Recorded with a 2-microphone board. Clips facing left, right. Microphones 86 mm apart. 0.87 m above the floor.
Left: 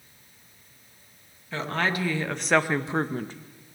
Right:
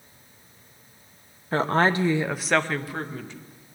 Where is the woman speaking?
45° right (ahead or behind), 0.8 m; by 3.3 s 45° left (ahead or behind), 0.7 m.